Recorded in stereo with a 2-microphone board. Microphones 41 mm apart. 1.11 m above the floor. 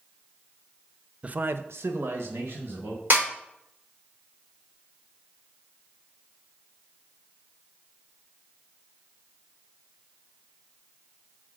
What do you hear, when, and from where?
1.2 s a man speaking: 30° right (ahead or behind), 0.6 m; by 3.0 s 65° right (ahead or behind), 2.5 m
3.1 s a snare drum: 45° right (ahead or behind), 4 m